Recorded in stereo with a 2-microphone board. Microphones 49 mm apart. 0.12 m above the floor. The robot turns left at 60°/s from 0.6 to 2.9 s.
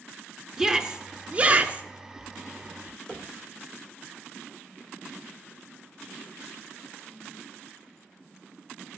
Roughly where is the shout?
Centre.